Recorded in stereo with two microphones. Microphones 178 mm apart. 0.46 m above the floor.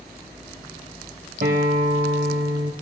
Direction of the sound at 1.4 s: 65° right (ahead or behind).